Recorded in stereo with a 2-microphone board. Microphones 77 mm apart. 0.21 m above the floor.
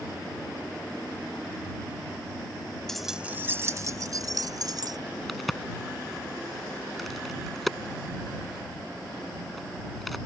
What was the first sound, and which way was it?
Keys jangling, 5° left (ahead or behind).